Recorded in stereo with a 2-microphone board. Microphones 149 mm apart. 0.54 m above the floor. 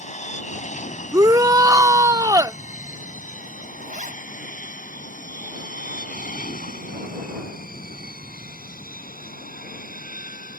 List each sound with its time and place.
0.0 s an aircraft: 50° left (ahead or behind); by 10.6 s 75° left (ahead or behind)
1.1 s a shout: 25° right (ahead or behind)
3.8 s a zipper: 60° right (ahead or behind)